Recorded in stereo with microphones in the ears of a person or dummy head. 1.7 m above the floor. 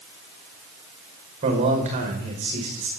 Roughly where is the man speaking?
Right.